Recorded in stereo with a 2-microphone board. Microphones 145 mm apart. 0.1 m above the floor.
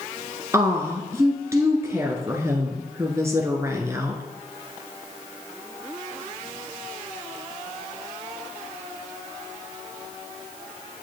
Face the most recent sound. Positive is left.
turn(degrees=-20)  # may be behind; listen again after turning